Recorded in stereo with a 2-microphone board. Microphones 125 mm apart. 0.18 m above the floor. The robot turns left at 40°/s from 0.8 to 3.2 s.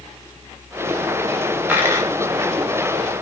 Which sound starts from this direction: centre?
A dropped coin, at 1.7 s.